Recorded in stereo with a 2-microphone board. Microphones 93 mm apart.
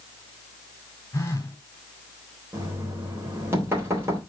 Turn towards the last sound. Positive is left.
turn(degrees=-25)  # may be behind; listen again after turning